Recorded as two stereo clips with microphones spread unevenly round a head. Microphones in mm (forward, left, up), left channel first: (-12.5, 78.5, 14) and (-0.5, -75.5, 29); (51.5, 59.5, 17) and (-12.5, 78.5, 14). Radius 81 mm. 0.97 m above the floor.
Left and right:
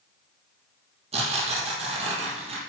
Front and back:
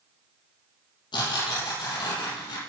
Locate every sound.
1.1 s tearing paper: 30° right, 5 m